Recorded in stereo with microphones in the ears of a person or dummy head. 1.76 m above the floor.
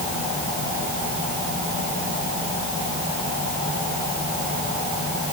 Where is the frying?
No frying in this recording.